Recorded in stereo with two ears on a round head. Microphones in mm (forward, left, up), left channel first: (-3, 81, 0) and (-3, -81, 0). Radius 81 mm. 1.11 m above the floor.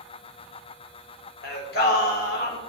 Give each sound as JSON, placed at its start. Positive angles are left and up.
{"t": 1.4, "sound": "singing", "side_deg": 55, "distance_m": 1.4}